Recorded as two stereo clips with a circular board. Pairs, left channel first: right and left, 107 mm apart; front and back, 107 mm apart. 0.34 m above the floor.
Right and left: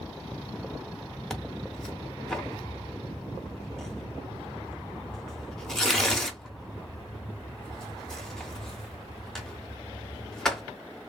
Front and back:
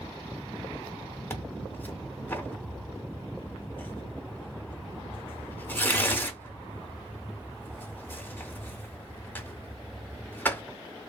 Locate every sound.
1.3 s tearing paper: 15° right, 0.7 m